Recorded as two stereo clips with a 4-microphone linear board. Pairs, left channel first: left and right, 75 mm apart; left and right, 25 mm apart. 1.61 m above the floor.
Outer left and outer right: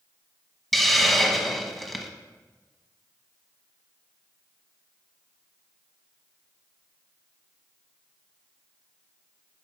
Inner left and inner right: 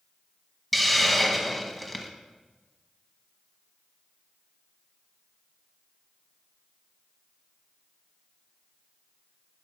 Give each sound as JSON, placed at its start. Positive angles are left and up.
{"t": 0.7, "sound": "a hiss", "side_deg": 0, "distance_m": 1.1}